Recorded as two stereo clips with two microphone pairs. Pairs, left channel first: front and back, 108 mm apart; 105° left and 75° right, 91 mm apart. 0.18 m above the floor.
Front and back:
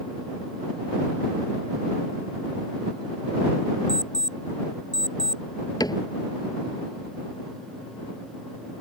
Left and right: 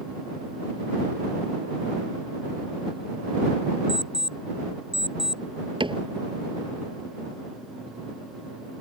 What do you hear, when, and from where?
3.9 s an alarm clock: 130° left
5.8 s a cupboard door: 50° right